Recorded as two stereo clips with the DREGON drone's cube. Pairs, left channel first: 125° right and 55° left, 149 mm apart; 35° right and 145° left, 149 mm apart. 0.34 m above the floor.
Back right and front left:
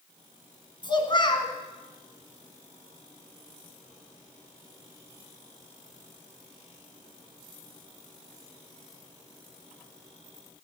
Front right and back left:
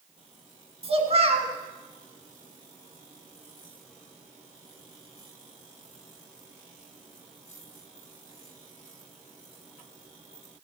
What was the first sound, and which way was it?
A child speaking, 175° right.